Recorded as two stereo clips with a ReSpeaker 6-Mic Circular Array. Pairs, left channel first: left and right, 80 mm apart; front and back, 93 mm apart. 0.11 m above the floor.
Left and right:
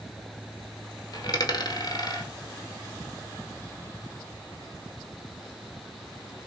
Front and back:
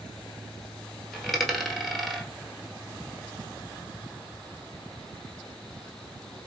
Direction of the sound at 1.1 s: 90° left.